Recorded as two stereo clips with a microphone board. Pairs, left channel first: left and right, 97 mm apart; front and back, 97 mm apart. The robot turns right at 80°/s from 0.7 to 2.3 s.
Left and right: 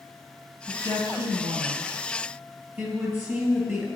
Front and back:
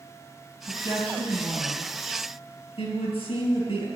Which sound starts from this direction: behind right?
A woman speaking, at 0.7 s.